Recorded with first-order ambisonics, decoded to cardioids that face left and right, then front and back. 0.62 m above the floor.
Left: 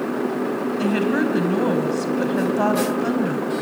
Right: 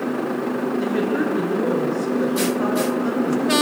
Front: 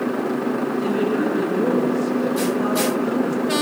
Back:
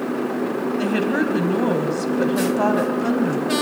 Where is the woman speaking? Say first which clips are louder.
Left 2 dB, back 1 dB; 140° left, 3.5 m.